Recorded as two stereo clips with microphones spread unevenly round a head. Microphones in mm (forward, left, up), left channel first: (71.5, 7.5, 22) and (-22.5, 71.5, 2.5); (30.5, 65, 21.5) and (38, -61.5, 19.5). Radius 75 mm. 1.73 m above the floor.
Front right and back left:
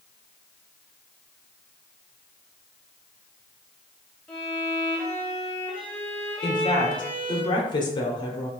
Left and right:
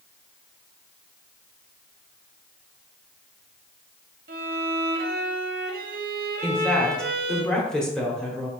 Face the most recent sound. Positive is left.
turn(degrees=10)